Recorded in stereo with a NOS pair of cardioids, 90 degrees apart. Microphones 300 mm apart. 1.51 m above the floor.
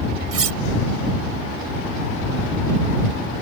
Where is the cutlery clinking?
50° right.